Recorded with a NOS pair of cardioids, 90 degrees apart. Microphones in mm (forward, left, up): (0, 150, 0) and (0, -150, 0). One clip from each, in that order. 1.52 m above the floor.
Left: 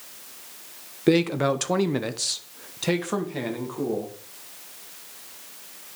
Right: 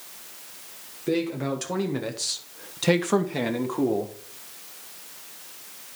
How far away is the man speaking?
About 1.2 m.